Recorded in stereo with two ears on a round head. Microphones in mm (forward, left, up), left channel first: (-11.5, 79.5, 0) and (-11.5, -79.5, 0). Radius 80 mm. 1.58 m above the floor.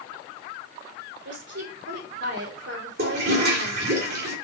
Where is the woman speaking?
75° right (ahead or behind), 3.5 m.